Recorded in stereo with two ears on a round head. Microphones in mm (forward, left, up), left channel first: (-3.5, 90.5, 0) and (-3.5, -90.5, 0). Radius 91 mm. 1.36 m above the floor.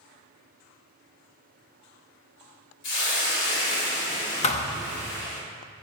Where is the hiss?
65° left (ahead or behind), 3 m.